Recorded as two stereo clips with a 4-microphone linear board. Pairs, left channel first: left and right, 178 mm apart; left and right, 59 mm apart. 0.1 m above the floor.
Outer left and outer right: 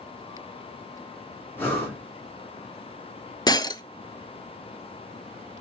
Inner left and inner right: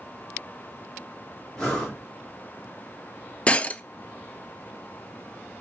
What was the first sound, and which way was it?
Breathing, 10° left (ahead or behind).